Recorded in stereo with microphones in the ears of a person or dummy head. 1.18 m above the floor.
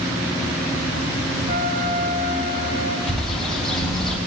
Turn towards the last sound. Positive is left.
turn(degrees=0)  # may be behind; listen again after turning